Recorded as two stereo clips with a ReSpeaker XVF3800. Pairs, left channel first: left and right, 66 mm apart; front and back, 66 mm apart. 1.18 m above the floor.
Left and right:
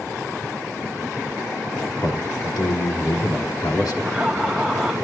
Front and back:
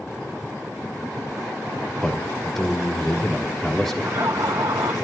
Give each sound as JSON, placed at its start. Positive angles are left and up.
{"t": 2.0, "sound": "a man speaking", "azimuth_deg": 85, "distance_m": 3.5}
{"t": 4.0, "sound": "laughter", "azimuth_deg": -170, "distance_m": 2.0}